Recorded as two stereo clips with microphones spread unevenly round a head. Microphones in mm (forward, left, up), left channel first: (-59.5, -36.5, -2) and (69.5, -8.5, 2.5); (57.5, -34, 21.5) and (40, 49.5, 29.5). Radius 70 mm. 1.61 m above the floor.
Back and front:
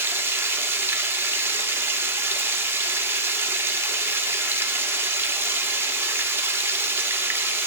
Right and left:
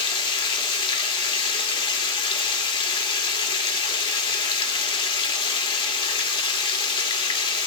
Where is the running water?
60° right, 2 m.